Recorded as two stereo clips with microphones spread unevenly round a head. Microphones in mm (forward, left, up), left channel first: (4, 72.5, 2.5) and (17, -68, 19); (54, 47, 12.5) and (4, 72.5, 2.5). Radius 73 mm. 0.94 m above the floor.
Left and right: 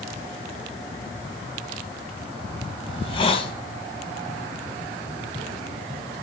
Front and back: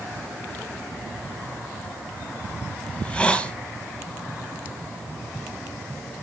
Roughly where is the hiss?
Ahead left.